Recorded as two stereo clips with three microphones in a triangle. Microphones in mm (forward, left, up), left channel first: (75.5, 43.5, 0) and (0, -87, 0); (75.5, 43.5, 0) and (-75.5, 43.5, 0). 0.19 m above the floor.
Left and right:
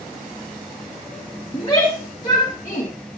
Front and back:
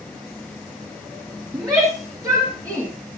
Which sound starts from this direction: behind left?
A shout, at 1.5 s.